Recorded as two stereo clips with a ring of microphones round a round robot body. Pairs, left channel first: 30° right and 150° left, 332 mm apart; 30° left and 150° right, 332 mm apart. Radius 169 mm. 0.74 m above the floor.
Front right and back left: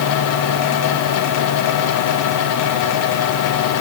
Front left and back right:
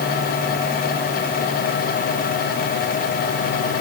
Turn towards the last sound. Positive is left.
No sound to turn to.